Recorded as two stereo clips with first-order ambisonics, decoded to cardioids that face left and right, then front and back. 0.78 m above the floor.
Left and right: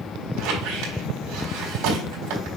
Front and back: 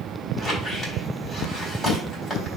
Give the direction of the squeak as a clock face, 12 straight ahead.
3 o'clock.